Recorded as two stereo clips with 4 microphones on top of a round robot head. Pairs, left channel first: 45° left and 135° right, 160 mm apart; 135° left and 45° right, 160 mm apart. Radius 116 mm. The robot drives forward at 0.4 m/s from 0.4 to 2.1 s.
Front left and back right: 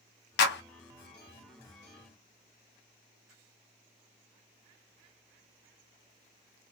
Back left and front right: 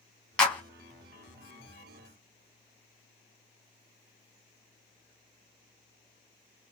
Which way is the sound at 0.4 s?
55° left.